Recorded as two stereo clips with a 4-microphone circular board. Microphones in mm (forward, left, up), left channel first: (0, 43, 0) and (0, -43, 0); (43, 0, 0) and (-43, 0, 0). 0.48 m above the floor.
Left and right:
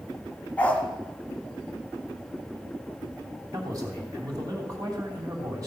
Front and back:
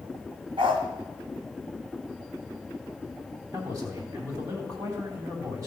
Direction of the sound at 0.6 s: 165° left.